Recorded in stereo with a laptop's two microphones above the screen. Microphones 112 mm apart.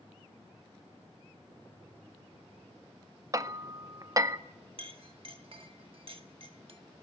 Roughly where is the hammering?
Right.